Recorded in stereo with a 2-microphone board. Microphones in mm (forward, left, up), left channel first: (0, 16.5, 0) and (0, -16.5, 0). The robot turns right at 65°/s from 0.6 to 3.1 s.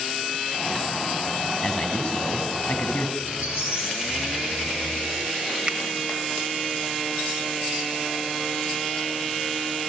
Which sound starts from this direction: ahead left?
A man speaking, at 1.6 s.